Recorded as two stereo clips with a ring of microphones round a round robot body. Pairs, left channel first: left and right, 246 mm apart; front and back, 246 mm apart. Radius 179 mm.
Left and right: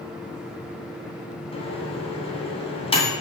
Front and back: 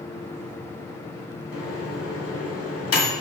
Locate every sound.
1.5 s a microwave: 25° left, 2 m